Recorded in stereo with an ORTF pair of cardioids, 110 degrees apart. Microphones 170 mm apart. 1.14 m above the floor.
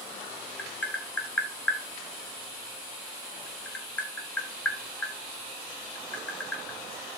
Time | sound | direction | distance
0.6 | tapping | 10° left | 1.5 m